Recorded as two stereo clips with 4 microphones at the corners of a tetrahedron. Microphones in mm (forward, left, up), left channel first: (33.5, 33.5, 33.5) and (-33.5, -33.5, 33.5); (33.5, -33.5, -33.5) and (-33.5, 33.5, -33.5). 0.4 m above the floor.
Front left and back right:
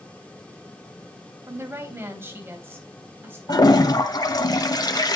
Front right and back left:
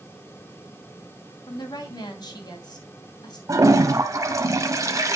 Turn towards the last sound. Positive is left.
turn(degrees=85)